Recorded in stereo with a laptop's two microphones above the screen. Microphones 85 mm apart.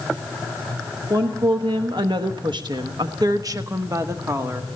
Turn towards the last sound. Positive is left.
turn(degrees=-30)  # may be behind; listen again after turning